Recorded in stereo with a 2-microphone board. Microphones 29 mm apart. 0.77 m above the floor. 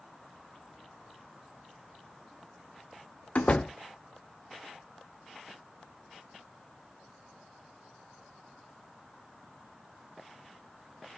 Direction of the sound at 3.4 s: 50° left (ahead or behind).